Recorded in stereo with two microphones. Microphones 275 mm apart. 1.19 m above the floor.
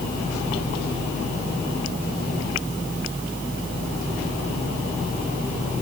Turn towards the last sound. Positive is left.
No sound to turn to.